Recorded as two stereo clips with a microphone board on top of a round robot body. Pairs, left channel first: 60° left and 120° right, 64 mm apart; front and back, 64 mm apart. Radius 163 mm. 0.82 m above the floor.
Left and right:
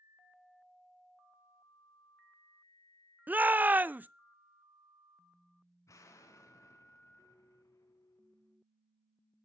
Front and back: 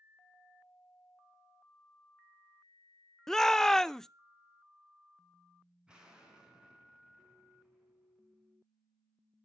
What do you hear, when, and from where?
3.3 s a shout: 80° right, 0.7 m
5.9 s an explosion: 100° left, 3 m